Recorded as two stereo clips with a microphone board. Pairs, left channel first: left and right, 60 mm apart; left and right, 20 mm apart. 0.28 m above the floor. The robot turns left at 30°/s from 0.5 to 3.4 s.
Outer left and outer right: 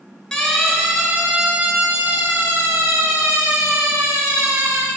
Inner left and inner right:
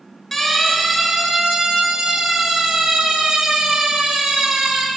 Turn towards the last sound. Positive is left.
turn(degrees=-80)